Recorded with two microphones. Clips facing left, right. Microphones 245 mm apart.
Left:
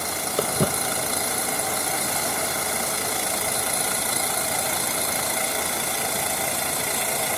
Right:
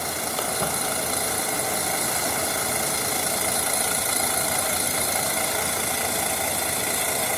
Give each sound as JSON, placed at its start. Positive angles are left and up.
{"t": 0.4, "sound": "footsteps", "side_deg": 50, "distance_m": 0.6}